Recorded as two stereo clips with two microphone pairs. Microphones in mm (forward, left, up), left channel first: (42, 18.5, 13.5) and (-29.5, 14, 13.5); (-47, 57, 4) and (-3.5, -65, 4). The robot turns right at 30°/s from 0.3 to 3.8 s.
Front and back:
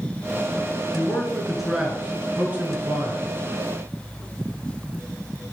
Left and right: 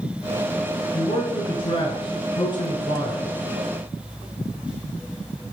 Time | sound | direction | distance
0.9 | a man speaking | 80° left | 1.3 m